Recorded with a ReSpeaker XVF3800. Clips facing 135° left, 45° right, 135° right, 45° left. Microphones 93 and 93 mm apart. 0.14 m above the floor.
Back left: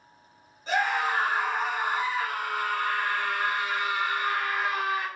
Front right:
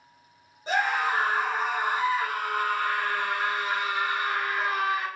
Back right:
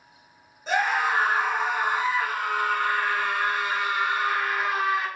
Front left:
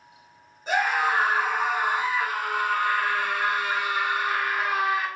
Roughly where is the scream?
Ahead right.